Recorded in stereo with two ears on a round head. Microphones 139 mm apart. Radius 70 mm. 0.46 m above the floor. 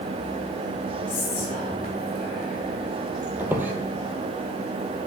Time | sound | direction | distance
1.1 | whispering | 55° left (ahead or behind) | 2.5 m
3.4 | a squeak | 10° right (ahead or behind) | 1.2 m